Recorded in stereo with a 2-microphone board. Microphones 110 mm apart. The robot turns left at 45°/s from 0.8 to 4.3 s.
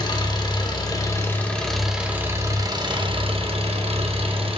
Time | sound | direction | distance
0.0 | an engine running | 45° left | 0.8 m